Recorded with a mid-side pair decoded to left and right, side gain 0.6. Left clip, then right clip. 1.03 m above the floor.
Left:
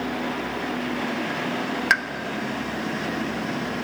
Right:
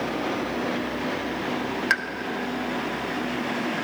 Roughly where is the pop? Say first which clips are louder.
Left 3 dB; ahead.